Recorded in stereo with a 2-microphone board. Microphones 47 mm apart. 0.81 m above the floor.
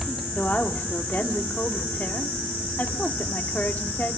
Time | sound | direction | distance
0.3 | a woman speaking | 40° left (ahead or behind) | 2 m